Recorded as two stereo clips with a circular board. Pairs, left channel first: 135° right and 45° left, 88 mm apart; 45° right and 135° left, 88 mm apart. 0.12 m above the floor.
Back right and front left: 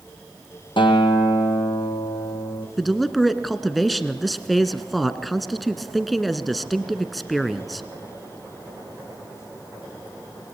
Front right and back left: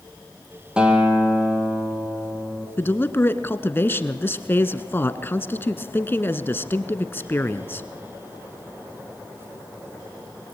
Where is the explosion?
No explosion in this recording.